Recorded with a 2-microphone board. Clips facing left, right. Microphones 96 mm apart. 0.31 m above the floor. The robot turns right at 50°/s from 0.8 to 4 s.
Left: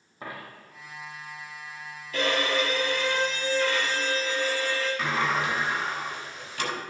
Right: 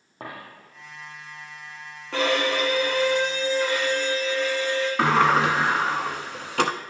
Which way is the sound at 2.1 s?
85° right.